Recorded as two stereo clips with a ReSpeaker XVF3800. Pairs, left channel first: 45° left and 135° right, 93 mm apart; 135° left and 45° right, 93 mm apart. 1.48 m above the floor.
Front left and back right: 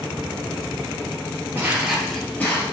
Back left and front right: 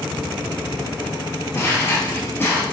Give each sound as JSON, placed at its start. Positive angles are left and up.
{"t": 1.6, "sound": "footsteps", "azimuth_deg": 175, "distance_m": 1.7}